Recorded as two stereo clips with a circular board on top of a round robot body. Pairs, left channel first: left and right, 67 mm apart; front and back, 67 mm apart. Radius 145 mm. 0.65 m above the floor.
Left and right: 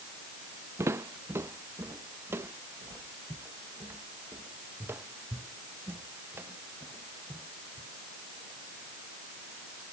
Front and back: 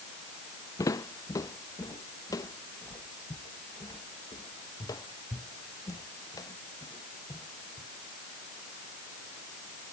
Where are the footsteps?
40° right; by 7.9 s 35° right.